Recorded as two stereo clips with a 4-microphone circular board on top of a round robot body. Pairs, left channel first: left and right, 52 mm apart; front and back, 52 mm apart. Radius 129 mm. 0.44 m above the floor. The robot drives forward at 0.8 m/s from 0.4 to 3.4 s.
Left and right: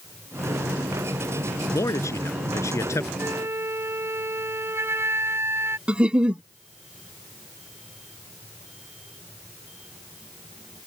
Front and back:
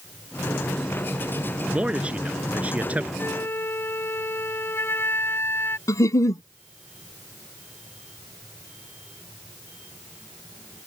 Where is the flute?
45° right; by 5.8 s 50° right.